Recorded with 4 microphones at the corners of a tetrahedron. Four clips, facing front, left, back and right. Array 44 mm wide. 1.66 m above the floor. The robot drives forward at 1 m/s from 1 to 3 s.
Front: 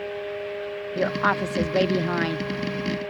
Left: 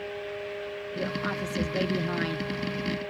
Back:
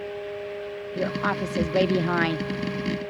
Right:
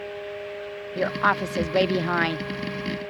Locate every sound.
0.9 s a woman speaking: 55° right; by 2.4 s 125° right